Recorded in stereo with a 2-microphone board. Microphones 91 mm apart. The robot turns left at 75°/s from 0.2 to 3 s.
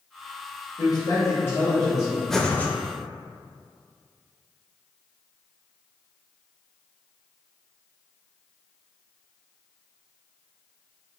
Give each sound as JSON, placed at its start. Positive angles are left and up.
{"t": 0.8, "sound": "a man speaking", "azimuth_deg": 85, "distance_m": 1.5}
{"t": 2.3, "sound": "breathing", "azimuth_deg": 175, "distance_m": 0.5}